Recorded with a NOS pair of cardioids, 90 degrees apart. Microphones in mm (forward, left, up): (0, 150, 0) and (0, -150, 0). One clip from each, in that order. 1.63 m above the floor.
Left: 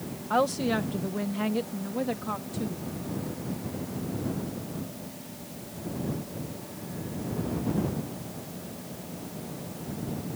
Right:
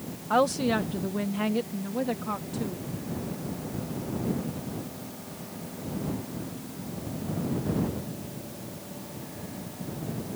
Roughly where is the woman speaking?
Ahead.